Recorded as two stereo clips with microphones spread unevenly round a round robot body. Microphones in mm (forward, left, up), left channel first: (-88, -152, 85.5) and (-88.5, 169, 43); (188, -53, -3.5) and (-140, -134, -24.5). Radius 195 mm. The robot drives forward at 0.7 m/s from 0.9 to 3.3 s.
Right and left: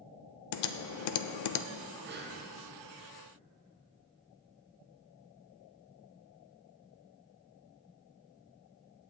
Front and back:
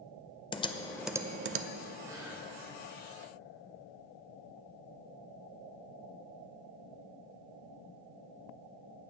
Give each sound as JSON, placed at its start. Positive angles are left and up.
{"t": 0.5, "sound": "typing on a keyboard", "azimuth_deg": -65, "distance_m": 0.5}
{"t": 2.0, "sound": "breathing", "azimuth_deg": 115, "distance_m": 1.1}